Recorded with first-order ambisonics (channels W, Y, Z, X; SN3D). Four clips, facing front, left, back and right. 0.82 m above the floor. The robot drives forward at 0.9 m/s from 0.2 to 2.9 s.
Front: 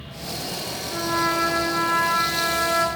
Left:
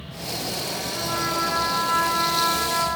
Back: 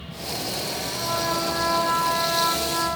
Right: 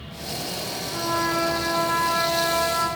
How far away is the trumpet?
About 9.5 m.